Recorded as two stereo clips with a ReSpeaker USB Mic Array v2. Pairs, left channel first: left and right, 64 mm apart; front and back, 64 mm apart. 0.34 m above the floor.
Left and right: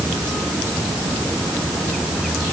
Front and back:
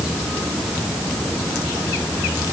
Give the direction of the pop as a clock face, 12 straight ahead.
No pop in this recording.